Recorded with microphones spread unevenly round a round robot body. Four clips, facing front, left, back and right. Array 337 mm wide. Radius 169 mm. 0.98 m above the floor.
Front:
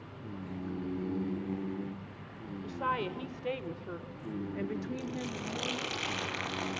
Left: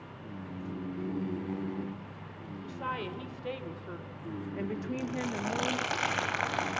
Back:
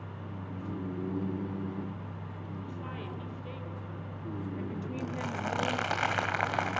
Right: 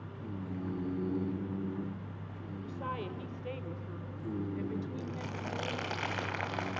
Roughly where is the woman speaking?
Ahead left.